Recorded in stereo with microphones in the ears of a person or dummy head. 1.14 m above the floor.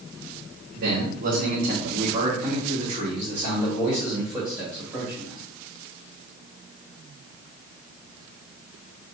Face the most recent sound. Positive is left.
turn(degrees=5)  # may be behind; listen again after turning